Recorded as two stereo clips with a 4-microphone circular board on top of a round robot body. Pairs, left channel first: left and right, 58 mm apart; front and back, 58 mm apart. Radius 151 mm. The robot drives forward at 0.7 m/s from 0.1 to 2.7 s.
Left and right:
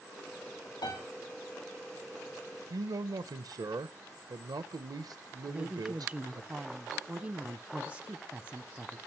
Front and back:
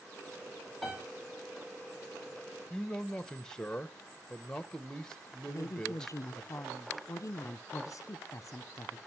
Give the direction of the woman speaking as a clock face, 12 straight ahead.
1 o'clock.